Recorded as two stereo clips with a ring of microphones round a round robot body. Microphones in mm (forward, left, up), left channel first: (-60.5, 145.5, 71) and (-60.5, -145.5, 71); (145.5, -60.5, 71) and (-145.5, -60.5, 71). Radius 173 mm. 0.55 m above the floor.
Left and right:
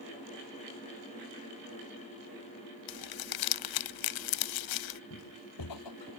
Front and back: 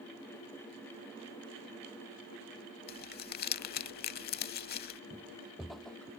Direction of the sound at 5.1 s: 100° left.